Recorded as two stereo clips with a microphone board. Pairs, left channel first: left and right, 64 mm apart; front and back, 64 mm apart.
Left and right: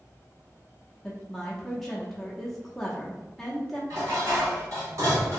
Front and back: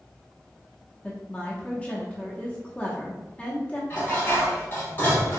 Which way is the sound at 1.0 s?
15° left.